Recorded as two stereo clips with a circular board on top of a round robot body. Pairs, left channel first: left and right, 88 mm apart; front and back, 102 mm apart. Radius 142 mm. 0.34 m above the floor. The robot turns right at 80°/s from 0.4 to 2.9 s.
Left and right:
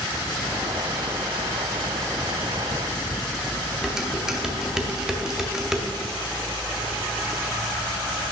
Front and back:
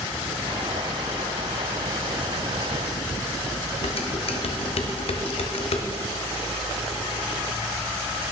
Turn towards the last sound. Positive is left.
turn(degrees=-5)